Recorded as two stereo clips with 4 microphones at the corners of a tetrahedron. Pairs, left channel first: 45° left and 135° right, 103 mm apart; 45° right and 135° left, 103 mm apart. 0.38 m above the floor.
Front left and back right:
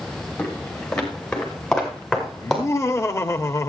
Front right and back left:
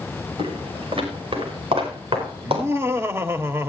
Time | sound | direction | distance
0.4 | footsteps | 120° left | 5.5 m
2.4 | laughter | 90° left | 1.5 m